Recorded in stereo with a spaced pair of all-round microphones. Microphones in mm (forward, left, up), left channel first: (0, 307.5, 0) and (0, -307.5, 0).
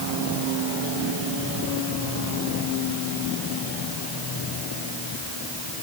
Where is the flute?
I don't hear a flute.